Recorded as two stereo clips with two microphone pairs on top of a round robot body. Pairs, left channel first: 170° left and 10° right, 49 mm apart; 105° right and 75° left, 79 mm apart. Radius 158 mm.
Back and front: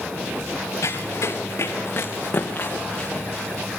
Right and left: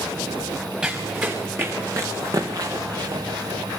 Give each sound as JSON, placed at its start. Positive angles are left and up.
{"t": 0.8, "sound": "running footsteps", "azimuth_deg": 150, "distance_m": 3.0}